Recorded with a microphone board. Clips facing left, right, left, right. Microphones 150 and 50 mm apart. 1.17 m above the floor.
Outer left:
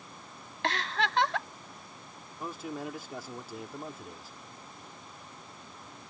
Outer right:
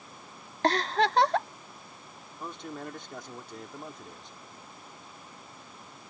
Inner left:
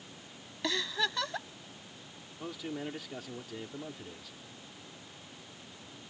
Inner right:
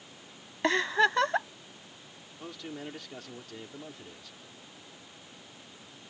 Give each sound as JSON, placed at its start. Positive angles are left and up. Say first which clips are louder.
{"t": 0.6, "sound": "a giggle", "louder": "outer right 6 dB, inner right 8 dB", "side_deg": -45}
{"t": 2.4, "sound": "a man speaking", "louder": "outer left 2 dB, inner left 2 dB", "side_deg": 5}